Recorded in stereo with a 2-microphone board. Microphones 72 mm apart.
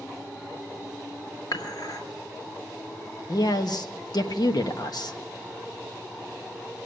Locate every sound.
1.5 s dishes clattering: 75° left (ahead or behind), 2 m
3.3 s a man speaking: 70° left (ahead or behind), 1.1 m